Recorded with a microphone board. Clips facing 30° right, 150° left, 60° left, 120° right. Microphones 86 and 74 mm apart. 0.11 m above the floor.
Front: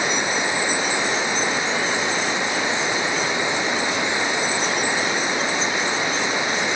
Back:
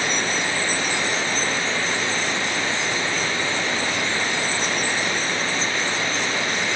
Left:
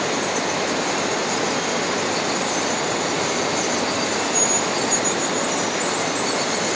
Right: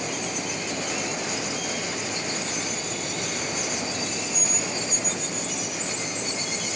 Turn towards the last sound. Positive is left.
turn(degrees=45)